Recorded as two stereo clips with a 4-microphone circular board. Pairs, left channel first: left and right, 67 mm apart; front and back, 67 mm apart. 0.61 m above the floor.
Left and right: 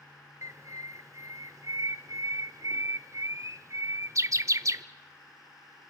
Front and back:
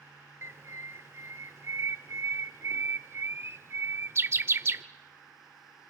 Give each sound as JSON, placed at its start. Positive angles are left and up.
{"t": 0.4, "sound": "a bird", "azimuth_deg": -130, "distance_m": 0.5}